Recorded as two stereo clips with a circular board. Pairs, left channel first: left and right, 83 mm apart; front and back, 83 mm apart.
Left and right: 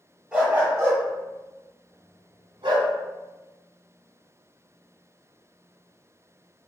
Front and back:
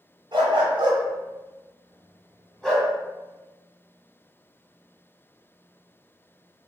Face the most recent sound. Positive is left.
turn(degrees=-75)